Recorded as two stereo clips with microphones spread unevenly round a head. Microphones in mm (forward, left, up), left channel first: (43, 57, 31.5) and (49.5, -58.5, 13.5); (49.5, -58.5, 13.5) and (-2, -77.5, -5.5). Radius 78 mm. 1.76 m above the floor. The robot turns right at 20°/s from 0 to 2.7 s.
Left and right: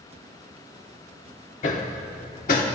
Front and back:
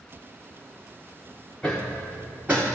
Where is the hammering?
95° left, 0.9 m; by 2.6 s 115° left, 0.9 m.